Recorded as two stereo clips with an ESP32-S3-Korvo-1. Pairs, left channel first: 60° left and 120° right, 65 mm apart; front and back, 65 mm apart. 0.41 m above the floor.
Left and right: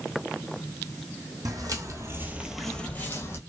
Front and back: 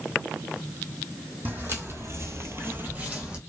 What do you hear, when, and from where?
1.4 s footsteps: 125° right, 1.0 m; by 3.4 s 105° left, 0.9 m